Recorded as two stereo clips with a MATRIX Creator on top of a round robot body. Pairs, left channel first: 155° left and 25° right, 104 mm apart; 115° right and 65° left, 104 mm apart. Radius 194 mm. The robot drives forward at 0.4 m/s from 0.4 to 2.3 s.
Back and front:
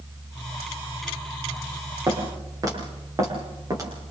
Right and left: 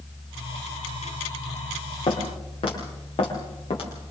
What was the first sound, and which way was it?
Footsteps, 80° right.